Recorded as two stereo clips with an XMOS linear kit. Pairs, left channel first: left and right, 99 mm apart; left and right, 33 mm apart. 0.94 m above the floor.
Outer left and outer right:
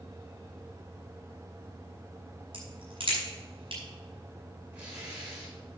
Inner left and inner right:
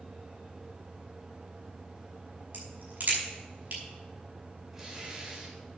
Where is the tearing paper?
15° right (ahead or behind), 5.5 m.